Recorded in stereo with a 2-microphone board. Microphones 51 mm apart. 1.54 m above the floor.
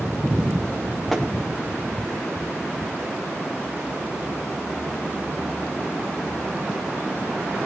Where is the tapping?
Centre (ahead or behind), 3 m.